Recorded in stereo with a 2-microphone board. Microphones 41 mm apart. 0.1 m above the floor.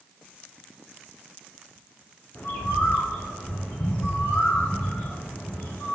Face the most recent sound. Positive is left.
turn(degrees=75)  # may be behind; listen again after turning